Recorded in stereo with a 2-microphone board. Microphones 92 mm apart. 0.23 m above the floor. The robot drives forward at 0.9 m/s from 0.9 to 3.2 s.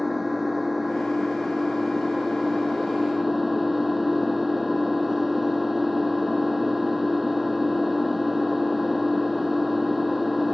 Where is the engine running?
Centre (ahead or behind).